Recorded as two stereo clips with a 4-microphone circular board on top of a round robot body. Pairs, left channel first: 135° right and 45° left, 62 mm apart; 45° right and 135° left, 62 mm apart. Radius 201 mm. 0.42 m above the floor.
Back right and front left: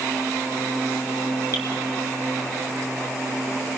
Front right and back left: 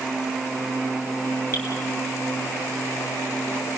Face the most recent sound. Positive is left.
turn(degrees=-100)